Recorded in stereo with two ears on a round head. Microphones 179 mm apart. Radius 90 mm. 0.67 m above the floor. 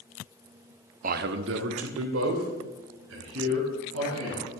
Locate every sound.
1.0 s a man speaking: 40° right (ahead or behind), 0.6 m; by 4.5 s 80° right, 5 m